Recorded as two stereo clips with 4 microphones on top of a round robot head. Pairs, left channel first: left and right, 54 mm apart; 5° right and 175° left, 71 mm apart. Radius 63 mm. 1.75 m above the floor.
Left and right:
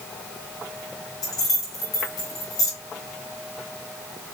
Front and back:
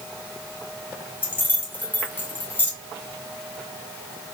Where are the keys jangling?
55° left, 2 m.